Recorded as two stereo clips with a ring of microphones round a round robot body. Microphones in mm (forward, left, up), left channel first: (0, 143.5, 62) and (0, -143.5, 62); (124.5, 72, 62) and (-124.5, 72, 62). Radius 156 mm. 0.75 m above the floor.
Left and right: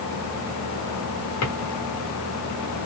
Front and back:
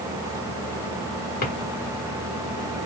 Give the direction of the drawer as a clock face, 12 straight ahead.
10 o'clock.